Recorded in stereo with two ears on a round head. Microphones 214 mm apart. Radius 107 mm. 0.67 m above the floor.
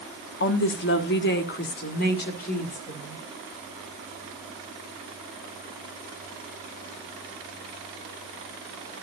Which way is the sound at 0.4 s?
50° left (ahead or behind).